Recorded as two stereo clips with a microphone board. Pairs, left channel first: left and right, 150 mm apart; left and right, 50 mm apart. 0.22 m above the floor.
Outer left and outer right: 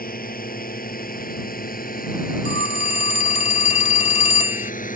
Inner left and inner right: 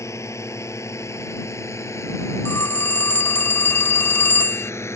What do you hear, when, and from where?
0.0 s a drone: 75° left (ahead or behind); by 5.0 s 65° left (ahead or behind)
2.5 s a phone ringing: 50° left (ahead or behind)